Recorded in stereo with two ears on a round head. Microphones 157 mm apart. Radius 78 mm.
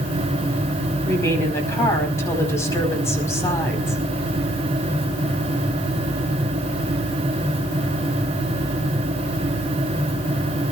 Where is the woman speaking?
15° left (ahead or behind), 4.5 m.